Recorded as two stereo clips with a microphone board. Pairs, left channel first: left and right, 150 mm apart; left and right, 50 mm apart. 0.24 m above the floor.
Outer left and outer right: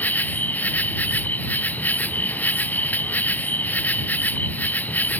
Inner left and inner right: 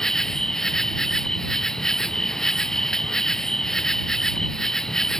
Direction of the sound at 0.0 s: 10° left (ahead or behind).